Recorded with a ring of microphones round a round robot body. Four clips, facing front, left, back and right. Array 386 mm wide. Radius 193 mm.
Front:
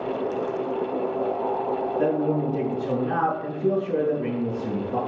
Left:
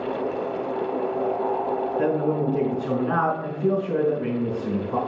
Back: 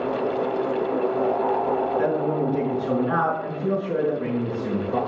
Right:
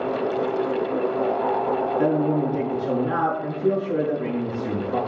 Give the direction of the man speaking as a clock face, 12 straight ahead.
8 o'clock.